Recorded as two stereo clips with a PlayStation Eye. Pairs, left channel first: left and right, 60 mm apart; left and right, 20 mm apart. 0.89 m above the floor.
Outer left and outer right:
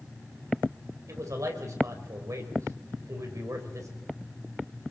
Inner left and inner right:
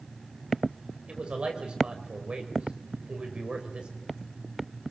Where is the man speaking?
65° right (ahead or behind), 4 m.